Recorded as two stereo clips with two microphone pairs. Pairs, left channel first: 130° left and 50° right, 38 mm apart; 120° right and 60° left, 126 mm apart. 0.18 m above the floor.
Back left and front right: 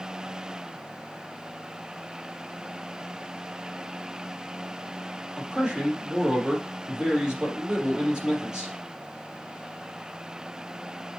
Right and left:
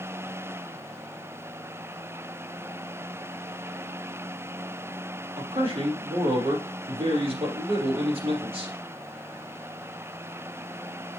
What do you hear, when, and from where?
5.4 s a man speaking: 20° left, 4 m